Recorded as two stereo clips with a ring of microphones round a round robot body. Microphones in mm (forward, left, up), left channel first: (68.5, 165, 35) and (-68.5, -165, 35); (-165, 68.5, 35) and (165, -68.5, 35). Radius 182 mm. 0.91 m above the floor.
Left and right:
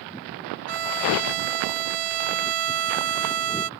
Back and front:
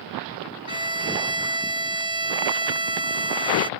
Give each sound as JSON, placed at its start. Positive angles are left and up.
{"t": 0.7, "sound": "a violin", "azimuth_deg": -100}